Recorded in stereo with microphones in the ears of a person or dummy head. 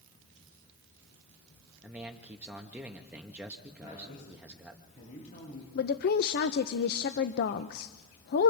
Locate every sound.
1.8 s a man speaking: 10° right (ahead or behind), 1.3 m
3.8 s a woman speaking: 40° left (ahead or behind), 9 m
5.8 s a woman speaking: 55° left (ahead or behind), 0.7 m